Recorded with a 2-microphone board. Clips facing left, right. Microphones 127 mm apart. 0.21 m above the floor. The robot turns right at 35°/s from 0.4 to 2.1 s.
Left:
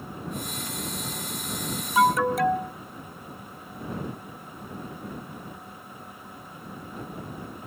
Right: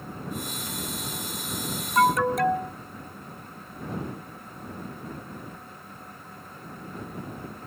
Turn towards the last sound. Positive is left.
turn(degrees=0)  # may be behind; listen again after turning